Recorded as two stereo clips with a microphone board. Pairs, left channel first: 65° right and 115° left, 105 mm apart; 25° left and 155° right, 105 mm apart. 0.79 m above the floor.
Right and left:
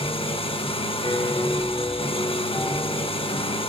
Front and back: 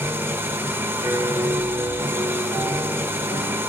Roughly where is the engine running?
Right.